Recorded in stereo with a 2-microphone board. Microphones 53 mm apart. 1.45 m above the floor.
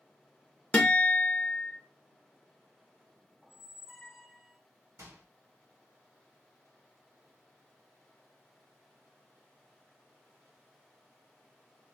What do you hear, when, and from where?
0.7 s a guitar: 20° left (ahead or behind), 0.9 m
3.4 s a squeak: centre (ahead or behind), 0.5 m
5.0 s a microwave: 60° right (ahead or behind), 1.8 m